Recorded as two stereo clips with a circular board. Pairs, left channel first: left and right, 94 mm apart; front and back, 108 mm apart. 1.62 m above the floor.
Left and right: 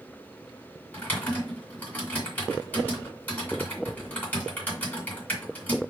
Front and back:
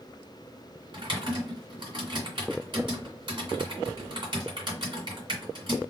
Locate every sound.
0.9 s typing on a keyboard: 155° left, 2.5 m